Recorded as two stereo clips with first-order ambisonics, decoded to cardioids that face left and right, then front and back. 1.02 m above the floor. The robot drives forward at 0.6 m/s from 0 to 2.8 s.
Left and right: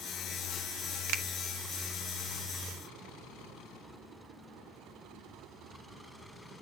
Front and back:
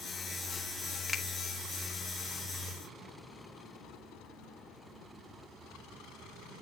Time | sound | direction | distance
1.1 | a finger snap | 80° right | 1.2 m